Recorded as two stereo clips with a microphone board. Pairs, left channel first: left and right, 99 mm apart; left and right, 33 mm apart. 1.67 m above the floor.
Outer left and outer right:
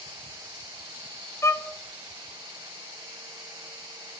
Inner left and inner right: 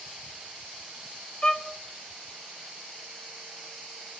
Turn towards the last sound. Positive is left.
turn(degrees=30)  # may be behind; listen again after turning